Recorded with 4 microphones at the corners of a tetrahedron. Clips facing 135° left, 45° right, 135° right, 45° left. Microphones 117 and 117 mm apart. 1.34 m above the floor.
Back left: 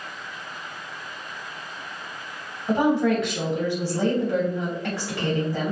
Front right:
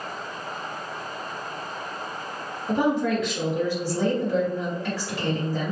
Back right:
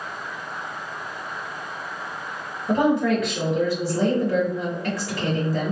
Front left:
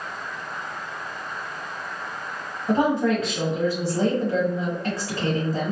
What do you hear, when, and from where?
2.7 s a woman speaking: 100° left, 1.3 m